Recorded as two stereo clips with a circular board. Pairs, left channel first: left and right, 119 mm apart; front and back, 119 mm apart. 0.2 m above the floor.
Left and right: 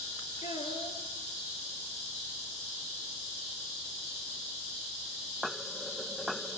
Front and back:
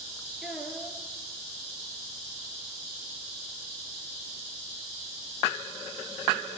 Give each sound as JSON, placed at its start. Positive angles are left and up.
{"t": 0.4, "sound": "a child speaking", "azimuth_deg": 95, "distance_m": 3.5}